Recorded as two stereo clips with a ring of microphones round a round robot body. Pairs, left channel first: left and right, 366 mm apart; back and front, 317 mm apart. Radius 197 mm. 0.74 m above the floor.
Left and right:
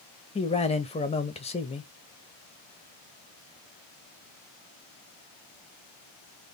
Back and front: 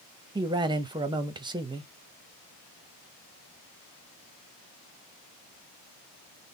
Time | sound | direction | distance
0.3 | a man speaking | 50° left | 0.9 m